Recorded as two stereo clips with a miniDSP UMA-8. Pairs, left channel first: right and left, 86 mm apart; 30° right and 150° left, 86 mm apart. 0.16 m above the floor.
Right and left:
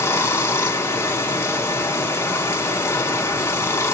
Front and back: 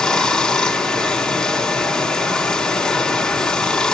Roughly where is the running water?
Right.